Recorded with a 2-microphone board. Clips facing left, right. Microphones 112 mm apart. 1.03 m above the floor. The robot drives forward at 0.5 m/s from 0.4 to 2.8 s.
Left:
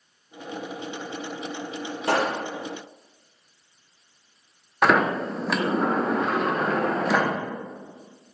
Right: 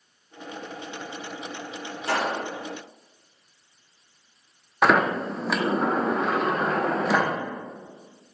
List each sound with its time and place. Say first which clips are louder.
2.1 s a pop: left 2 dB; 55° left (ahead or behind), 1.3 m; by 2.4 s 50° left (ahead or behind), 1.4 m
4.8 s a sliding door: even; 5° right (ahead or behind), 0.7 m